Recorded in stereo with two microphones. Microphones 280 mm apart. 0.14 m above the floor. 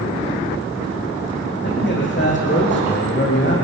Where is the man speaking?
40° left (ahead or behind), 8 m.